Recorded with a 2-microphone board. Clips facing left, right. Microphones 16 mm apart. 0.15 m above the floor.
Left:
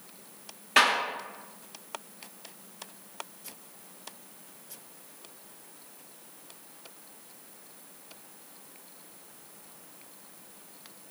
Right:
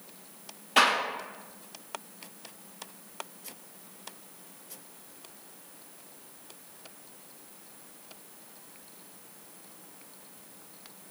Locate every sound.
0.8 s a clap: 35° left (ahead or behind), 1.6 m